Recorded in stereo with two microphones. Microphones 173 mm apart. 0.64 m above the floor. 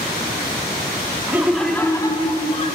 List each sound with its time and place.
1.3 s laughter: 15° right (ahead or behind), 1.1 m; by 2.8 s 40° left (ahead or behind), 1.7 m